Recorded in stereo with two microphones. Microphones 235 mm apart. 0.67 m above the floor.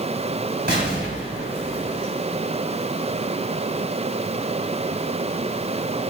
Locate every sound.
0.7 s an explosion: 45° right (ahead or behind), 3.5 m